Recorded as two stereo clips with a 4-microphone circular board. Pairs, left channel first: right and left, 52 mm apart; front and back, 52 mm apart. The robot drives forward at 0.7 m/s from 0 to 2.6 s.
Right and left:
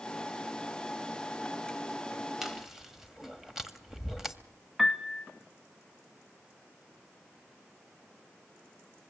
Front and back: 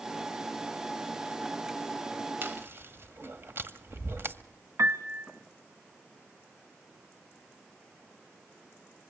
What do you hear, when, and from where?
2.4 s chewing: 175° left, 1.4 m
4.8 s a piano: 175° left, 1.0 m